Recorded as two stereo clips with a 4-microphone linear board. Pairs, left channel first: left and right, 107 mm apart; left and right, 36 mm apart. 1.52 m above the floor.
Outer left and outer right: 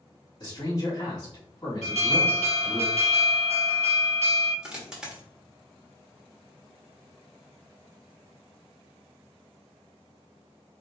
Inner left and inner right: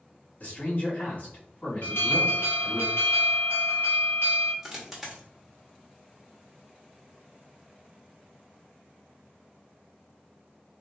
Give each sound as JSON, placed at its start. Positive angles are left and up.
{"t": 0.4, "sound": "a man speaking", "side_deg": 40, "distance_m": 1.9}
{"t": 1.8, "sound": "an alarm", "side_deg": 85, "distance_m": 1.6}
{"t": 4.6, "sound": "a dropped coin", "side_deg": -5, "distance_m": 1.2}